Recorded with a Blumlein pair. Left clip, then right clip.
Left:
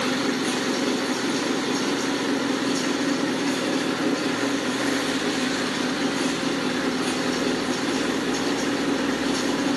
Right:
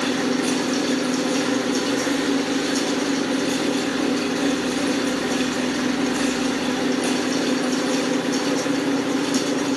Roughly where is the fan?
Ahead right.